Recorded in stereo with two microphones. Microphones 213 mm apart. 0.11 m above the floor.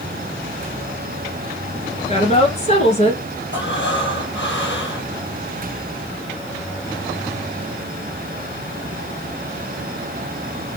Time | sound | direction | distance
2.1 | a woman speaking | 30° left (ahead or behind) | 1.6 m
3.5 | breathing | 60° left (ahead or behind) | 3.5 m